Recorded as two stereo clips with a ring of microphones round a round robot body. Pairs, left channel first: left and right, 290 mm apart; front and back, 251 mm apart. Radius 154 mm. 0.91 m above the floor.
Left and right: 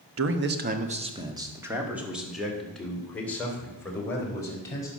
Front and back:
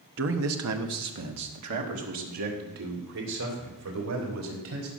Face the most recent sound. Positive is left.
turn(degrees=170)